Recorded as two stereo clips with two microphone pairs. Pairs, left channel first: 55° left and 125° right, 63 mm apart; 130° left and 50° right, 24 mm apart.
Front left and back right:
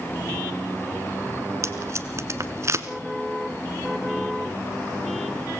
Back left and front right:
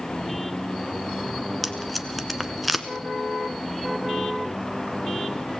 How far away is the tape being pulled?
About 1.3 m.